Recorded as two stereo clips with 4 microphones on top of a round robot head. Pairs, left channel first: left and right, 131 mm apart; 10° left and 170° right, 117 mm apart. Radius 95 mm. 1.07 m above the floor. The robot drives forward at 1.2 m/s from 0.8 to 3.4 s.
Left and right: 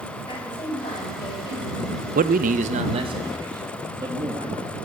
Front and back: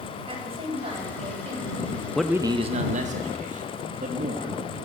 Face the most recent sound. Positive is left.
turn(degrees=-155)